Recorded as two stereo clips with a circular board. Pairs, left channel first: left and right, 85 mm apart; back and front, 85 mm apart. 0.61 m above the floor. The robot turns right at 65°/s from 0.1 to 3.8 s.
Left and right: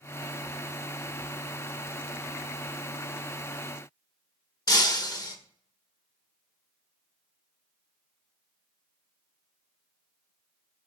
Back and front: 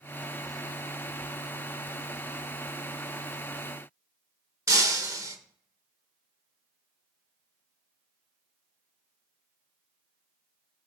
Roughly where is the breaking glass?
Ahead left.